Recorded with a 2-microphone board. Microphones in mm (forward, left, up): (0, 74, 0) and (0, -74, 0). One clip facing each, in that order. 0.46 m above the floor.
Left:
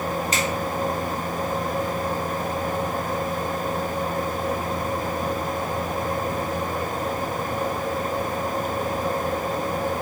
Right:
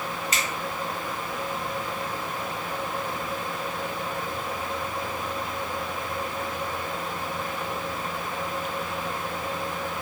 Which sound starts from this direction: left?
A finger snap, at 0.3 s.